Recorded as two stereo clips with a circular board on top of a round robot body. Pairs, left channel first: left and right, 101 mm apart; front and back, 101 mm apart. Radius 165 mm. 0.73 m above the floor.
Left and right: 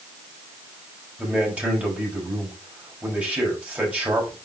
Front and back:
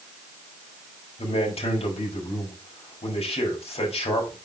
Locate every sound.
1.2 s a man speaking: 15° right, 4.5 m